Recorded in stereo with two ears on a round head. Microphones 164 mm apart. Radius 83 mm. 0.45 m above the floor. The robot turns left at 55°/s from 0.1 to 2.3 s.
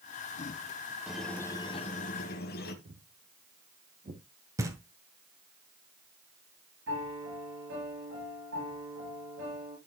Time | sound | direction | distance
1.1 | a squeak | 175° right | 1.6 m
2.9 | footsteps | 55° right (ahead or behind) | 2.5 m
4.6 | knocking | 15° right (ahead or behind) | 1.8 m
6.9 | a piano | 85° right | 7 m